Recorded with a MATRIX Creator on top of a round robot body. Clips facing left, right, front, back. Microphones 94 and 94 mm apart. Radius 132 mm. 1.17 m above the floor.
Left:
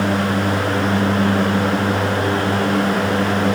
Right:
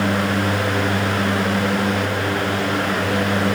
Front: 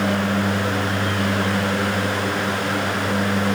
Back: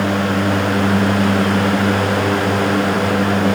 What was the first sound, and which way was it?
Only background noise.